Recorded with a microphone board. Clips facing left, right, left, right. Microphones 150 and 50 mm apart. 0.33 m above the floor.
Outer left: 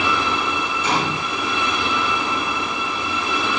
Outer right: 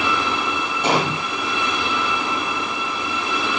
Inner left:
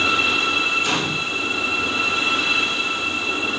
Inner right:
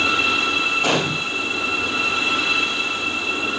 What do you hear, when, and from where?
0.8 s a gunshot: 65° right (ahead or behind), 2.5 m